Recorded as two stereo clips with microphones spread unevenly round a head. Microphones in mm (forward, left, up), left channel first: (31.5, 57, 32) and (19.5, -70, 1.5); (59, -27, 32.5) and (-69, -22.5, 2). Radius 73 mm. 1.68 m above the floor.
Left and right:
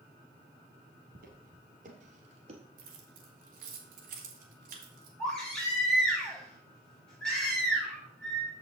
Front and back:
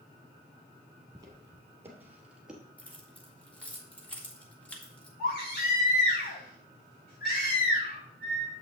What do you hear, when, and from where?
1.1 s footsteps: 115° right, 2.5 m; by 2.6 s 75° right, 1.9 m
2.8 s keys jangling: 75° right, 1.9 m
5.2 s a baby crying: 5° left, 5 m